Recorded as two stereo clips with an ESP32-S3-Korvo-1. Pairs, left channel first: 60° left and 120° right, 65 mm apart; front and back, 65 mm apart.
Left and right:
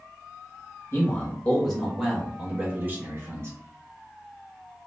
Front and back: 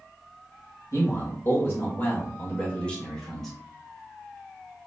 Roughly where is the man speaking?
Ahead.